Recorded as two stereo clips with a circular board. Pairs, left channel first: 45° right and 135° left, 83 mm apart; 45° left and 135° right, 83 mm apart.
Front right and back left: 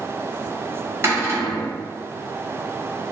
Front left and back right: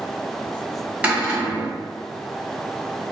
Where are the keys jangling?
I don't hear keys jangling.